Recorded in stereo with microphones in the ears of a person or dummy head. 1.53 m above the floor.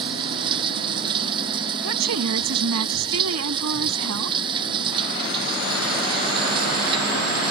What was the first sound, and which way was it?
Running water, 25° right (ahead or behind).